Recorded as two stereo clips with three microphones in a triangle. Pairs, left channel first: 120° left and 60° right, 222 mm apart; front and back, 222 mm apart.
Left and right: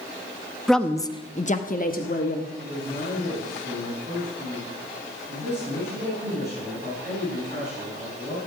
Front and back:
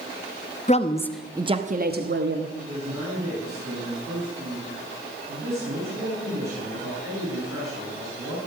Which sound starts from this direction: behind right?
A man speaking, at 2.6 s.